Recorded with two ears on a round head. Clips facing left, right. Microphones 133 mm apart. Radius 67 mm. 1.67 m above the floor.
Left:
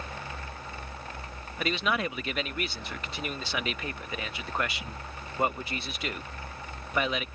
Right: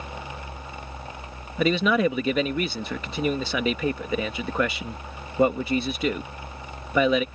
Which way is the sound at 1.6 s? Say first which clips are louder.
Right 9 dB; 80° right.